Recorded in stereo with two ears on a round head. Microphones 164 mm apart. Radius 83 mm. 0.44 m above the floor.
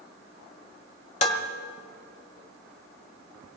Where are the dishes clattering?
40° left (ahead or behind), 1.5 m.